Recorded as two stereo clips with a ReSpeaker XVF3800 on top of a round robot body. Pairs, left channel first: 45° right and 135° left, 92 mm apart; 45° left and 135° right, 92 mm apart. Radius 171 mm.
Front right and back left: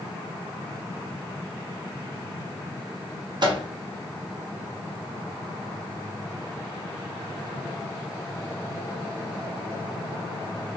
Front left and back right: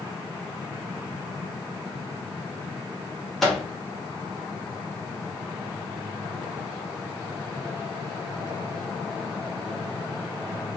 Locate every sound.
3.4 s a microwave: 135° left, 1.1 m